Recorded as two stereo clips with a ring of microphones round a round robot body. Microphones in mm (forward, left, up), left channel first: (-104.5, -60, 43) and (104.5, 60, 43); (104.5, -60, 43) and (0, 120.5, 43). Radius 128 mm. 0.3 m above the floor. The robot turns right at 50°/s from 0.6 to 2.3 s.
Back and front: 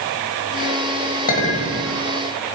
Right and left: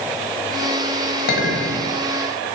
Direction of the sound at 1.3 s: 100° right.